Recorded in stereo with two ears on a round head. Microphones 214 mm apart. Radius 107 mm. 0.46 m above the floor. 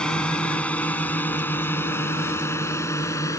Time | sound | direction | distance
0.0 | a drone | 5° left (ahead or behind) | ?